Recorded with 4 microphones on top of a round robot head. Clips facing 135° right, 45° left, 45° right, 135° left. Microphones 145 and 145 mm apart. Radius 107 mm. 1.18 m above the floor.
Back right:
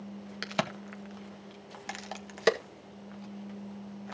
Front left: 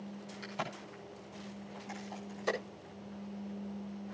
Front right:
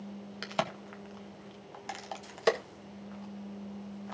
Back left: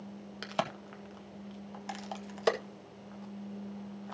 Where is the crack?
135° right, 1.6 m.